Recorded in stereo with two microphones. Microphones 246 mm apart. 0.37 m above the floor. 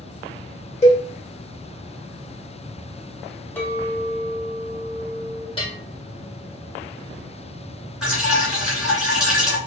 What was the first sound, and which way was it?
A cowbell, 25° left (ahead or behind).